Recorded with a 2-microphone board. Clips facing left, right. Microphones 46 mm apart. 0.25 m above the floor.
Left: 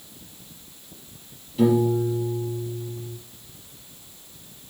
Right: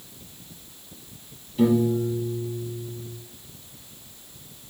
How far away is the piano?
About 4 m.